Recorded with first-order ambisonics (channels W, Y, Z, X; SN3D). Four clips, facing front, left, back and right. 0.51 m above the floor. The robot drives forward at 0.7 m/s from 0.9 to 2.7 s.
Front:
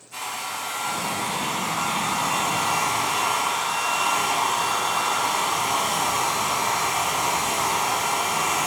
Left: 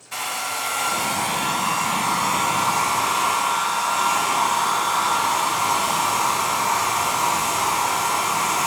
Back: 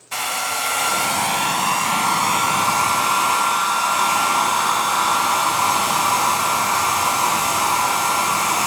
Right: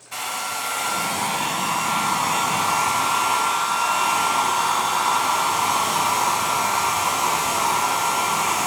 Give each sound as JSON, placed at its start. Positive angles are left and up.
{"t": 0.1, "sound": "a hair dryer", "azimuth_deg": 175, "distance_m": 1.1}